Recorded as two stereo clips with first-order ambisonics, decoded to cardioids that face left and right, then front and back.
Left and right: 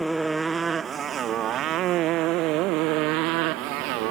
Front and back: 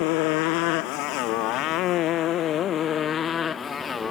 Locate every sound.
0.0 s a motorcycle: 5° right; by 4.1 s 75° right